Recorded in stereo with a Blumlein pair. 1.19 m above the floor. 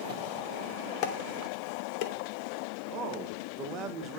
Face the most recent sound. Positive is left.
turn(degrees=-30)